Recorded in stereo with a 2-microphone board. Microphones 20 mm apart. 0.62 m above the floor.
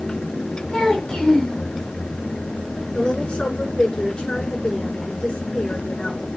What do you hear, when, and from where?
0.7 s a child speaking: 50° left (ahead or behind), 4 m
2.9 s a woman speaking: 50° left (ahead or behind), 7 m